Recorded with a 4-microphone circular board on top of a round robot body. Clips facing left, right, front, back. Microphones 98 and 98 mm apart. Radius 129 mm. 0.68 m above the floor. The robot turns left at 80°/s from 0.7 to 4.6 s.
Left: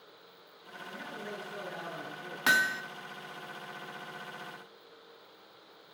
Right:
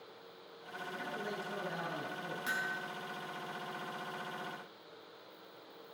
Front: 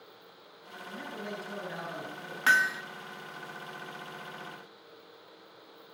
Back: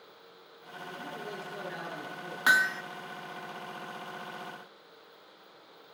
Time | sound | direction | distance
0.9 | a man speaking | 20° left | 8 m
2.5 | hammering | 105° left | 0.8 m